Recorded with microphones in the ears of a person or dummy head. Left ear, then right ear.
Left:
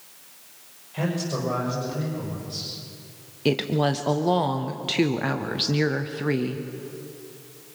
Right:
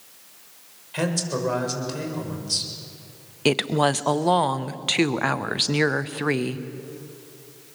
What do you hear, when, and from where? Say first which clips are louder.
0.9 s a man speaking: right 3 dB; 60° right (ahead or behind), 6.5 m
3.5 s a woman speaking: right 3 dB; 30° right (ahead or behind), 0.8 m